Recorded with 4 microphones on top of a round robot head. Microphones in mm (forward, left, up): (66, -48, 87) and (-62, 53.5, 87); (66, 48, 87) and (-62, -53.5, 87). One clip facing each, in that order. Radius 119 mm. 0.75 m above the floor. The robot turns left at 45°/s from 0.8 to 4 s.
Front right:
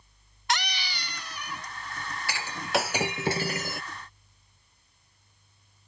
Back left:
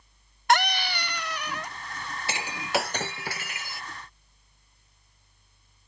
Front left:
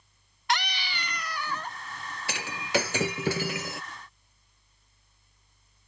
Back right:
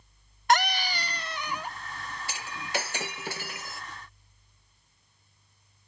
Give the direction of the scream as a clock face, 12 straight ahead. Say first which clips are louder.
Back left 8 dB, back right 6 dB; 6 o'clock.